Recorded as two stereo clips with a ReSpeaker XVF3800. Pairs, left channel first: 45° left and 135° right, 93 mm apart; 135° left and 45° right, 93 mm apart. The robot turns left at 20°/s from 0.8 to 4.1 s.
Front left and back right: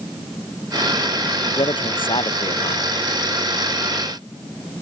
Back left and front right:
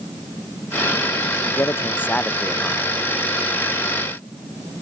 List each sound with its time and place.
1.6 s a man speaking: 75° left; by 2.9 s 50° left